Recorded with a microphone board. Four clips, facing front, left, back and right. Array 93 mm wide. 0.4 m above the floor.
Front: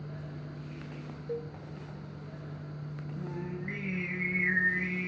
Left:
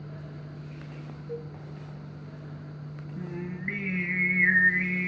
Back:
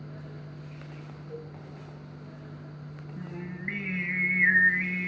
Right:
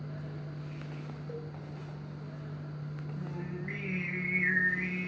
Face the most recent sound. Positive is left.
turn(degrees=135)